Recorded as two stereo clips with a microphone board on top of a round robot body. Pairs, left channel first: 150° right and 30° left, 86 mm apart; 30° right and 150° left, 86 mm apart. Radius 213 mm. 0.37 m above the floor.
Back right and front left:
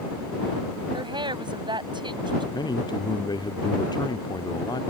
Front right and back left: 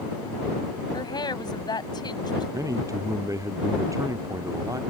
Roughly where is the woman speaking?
Ahead.